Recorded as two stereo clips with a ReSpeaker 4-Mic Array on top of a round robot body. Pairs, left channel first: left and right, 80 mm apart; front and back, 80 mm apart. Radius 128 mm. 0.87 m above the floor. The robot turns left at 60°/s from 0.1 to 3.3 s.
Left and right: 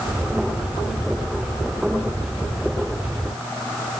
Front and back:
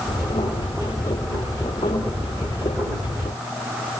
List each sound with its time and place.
Only background noise.